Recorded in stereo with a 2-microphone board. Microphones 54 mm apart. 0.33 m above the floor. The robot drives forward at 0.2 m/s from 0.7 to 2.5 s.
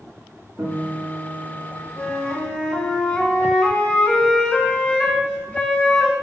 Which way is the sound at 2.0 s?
15° left (ahead or behind).